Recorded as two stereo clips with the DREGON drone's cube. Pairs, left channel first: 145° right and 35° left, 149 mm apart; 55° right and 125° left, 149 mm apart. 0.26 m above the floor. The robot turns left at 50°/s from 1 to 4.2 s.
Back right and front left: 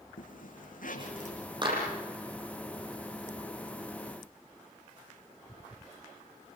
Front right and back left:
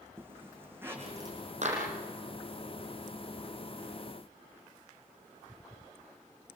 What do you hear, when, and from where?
0.2 s a zipper: 160° right, 5.5 m; by 1.4 s straight behind, 5.5 m
1.6 s a clap: 90° left, 9.5 m; by 1.8 s 80° left, 9.5 m